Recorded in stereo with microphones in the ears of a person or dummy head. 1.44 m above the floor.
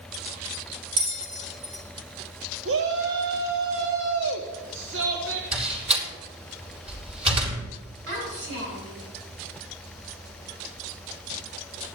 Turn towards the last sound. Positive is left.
turn(degrees=-75)  # may be behind; listen again after turning